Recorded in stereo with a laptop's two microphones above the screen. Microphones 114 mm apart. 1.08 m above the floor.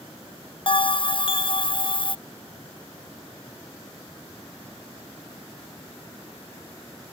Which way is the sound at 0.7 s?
50° left (ahead or behind).